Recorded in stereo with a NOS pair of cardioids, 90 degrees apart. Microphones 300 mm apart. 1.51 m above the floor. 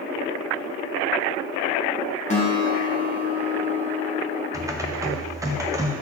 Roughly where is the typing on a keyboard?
Ahead.